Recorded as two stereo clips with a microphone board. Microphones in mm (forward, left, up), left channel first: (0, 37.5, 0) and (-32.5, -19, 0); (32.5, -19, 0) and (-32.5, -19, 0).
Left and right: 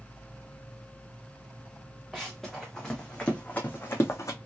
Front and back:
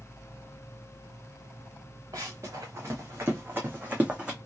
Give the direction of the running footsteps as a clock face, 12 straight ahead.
7 o'clock.